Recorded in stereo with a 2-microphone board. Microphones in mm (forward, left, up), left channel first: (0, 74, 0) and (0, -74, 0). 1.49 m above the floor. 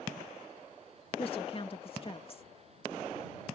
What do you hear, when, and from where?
1.2 s a woman speaking: 40° left (ahead or behind)